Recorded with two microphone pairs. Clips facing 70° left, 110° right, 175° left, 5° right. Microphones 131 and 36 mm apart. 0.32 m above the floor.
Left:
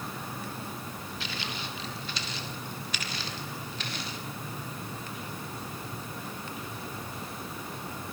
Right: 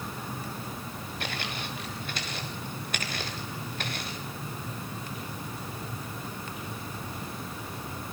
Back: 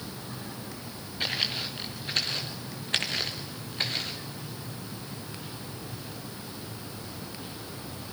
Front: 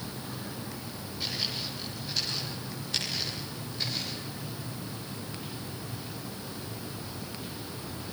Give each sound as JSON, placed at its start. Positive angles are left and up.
{"t": 1.2, "sound": "footsteps", "azimuth_deg": -145, "distance_m": 2.5}